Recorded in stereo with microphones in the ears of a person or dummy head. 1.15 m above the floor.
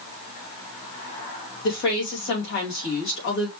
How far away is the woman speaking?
About 2.5 m.